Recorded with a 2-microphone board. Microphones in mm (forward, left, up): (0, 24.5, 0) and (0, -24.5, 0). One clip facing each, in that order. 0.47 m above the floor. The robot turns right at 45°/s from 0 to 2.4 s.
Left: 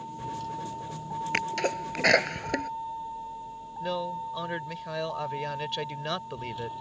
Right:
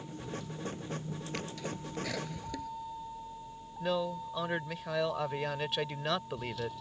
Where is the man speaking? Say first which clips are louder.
Left 1 dB; centre (ahead or behind).